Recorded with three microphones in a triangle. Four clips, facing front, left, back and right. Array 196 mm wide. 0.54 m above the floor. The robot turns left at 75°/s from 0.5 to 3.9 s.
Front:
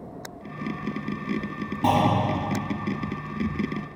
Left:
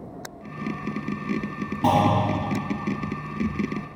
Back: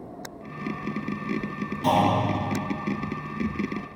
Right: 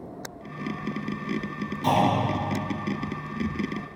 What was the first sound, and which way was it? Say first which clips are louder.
A clunk: left 2 dB, even; 55° left.